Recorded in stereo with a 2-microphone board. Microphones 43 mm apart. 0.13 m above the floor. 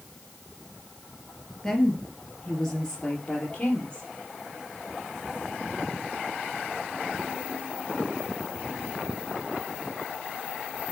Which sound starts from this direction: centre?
A woman speaking, at 1.6 s.